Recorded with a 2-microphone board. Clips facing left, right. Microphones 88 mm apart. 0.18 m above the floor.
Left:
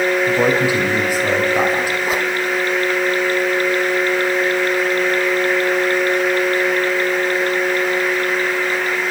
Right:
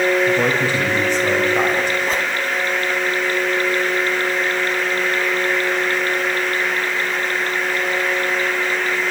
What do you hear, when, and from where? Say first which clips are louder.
0.3 s a man speaking: left 2 dB; 10° left (ahead or behind), 7 m; by 1.9 s 5° left (ahead or behind), 7 m
2.0 s a whoosh: left 2 dB; 10° left (ahead or behind), 1.5 m